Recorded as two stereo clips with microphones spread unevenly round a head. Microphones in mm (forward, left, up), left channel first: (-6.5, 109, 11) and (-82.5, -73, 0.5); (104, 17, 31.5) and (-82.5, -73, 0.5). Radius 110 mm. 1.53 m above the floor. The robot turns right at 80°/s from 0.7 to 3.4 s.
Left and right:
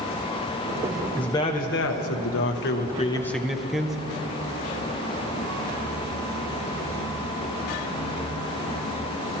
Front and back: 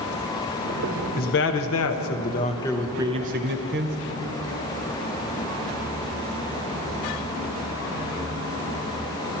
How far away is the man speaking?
About 1.0 m.